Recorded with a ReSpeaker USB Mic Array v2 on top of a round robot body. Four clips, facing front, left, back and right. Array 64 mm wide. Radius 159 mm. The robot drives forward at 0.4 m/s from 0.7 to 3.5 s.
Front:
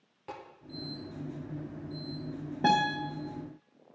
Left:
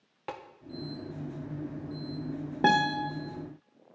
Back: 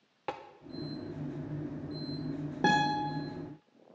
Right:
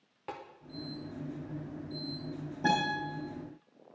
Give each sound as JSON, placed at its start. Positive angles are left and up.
{"t": 0.3, "sound": "tapping", "azimuth_deg": 155, "distance_m": 1.1}
{"t": 2.6, "sound": "a guitar", "azimuth_deg": 100, "distance_m": 0.8}